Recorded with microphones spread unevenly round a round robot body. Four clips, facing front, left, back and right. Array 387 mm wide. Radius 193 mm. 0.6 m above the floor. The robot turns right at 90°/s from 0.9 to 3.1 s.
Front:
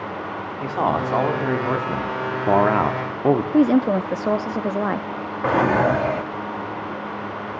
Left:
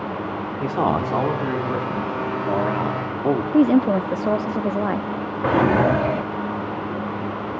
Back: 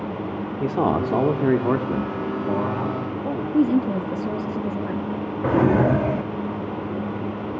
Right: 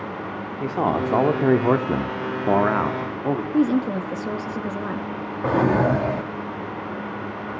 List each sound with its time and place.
0.6 s a man speaking: straight behind, 1.9 m; by 3.4 s 15° left, 1.9 m
3.5 s a woman speaking: 105° left, 0.6 m
5.4 s a drawer: 170° left, 0.5 m